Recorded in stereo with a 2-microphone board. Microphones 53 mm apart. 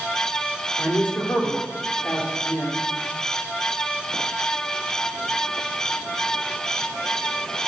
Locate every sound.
0.8 s a man speaking: 35° left (ahead or behind), 1.6 m